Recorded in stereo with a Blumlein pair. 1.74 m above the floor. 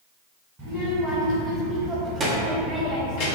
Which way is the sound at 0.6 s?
35° right.